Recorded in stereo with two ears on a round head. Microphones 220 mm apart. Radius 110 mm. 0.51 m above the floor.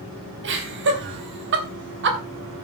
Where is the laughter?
50° right (ahead or behind), 4 m.